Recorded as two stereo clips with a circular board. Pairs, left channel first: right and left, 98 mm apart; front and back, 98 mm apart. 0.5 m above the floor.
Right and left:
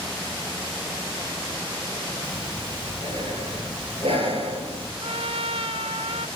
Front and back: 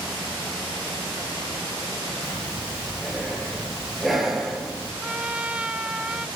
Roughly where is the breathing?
Left.